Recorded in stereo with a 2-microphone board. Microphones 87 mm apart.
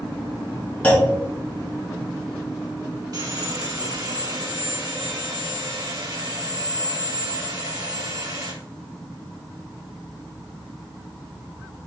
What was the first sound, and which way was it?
A clunk, 20° left (ahead or behind).